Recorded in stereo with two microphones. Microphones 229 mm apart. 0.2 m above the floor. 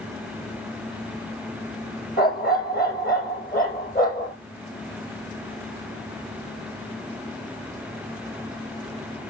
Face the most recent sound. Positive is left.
turn(degrees=40)  # may be behind; listen again after turning